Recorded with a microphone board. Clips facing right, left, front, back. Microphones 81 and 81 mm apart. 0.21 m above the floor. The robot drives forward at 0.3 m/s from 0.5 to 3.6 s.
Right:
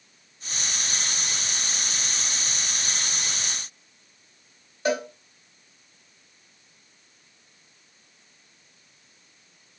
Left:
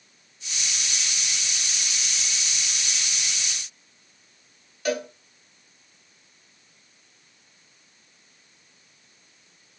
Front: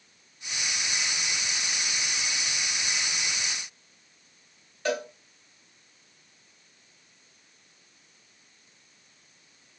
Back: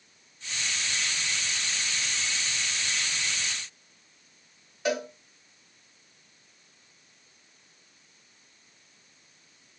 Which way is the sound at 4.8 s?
120° right.